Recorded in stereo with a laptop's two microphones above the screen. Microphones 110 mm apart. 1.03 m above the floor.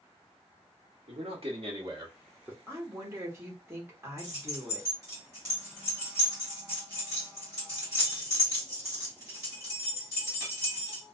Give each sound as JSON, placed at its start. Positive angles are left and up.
{"t": 1.1, "sound": "a man speaking", "side_deg": -65, "distance_m": 1.4}
{"t": 2.7, "sound": "a woman speaking", "side_deg": -20, "distance_m": 1.0}
{"t": 4.2, "sound": "keys jangling", "side_deg": -30, "distance_m": 1.4}